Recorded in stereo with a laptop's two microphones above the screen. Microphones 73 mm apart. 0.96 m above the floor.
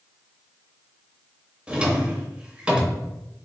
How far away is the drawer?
About 0.7 m.